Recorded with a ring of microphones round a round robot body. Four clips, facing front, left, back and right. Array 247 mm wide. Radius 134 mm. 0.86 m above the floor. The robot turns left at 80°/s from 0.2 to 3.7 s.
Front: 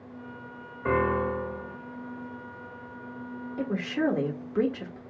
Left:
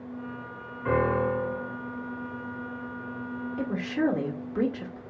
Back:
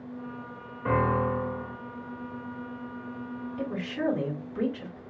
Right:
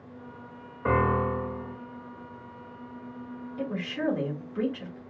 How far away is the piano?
About 1.7 m.